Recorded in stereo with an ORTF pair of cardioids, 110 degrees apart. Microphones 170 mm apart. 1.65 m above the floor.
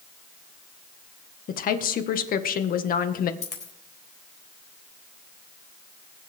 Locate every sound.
1.5 s a woman speaking: 55° left, 1.6 m
3.4 s a dropped coin: 45° left, 4 m